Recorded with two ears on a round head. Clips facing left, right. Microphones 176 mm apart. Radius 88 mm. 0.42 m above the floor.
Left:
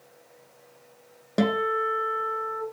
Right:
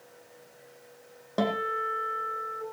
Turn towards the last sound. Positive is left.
turn(degrees=25)  # may be behind; listen again after turning